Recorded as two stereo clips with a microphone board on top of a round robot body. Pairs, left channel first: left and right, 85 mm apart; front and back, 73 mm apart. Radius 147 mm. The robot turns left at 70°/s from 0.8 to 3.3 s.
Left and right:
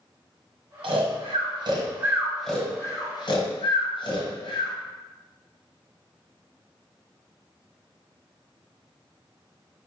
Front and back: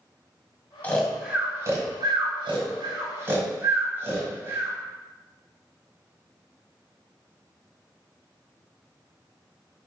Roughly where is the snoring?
Right.